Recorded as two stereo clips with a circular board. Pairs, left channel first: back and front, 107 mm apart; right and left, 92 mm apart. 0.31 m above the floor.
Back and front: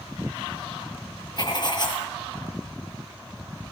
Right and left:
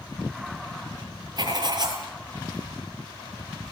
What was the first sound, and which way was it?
Writing, 130° left.